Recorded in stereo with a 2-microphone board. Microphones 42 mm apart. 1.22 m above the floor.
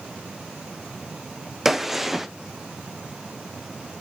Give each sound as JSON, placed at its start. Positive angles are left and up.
{"t": 1.6, "sound": "a gunshot", "side_deg": -5, "distance_m": 0.7}